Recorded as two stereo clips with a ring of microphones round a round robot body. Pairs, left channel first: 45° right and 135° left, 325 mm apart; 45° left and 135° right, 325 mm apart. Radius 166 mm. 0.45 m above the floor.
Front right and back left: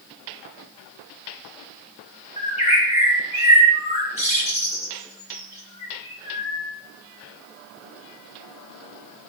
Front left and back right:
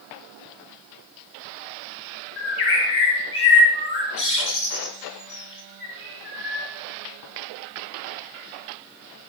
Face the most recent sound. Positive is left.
turn(degrees=25)